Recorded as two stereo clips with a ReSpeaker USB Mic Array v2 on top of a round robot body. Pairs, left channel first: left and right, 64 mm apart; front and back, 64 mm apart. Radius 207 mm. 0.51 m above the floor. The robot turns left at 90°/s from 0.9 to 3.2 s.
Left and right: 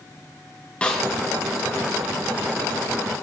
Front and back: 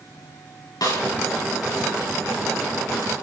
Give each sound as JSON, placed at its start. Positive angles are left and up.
{"t": 0.8, "sound": "a snare drum", "azimuth_deg": 20, "distance_m": 7.5}